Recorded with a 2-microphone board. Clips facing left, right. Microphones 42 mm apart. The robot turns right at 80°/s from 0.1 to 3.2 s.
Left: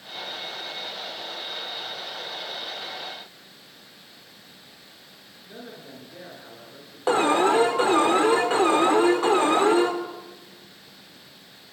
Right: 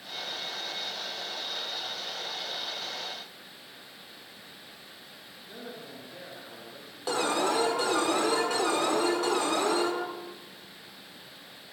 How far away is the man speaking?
About 9 m.